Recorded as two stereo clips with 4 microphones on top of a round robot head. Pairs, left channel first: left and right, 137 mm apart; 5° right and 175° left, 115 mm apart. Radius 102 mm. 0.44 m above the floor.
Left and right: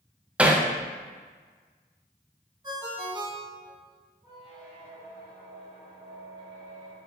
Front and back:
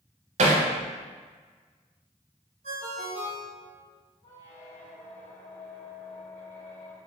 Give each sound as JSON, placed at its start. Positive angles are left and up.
{"t": 0.4, "sound": "hammering", "azimuth_deg": -170, "distance_m": 0.7}
{"t": 2.6, "sound": "a ringtone", "azimuth_deg": -150, "distance_m": 1.4}
{"t": 4.2, "sound": "a squeak", "azimuth_deg": -25, "distance_m": 1.7}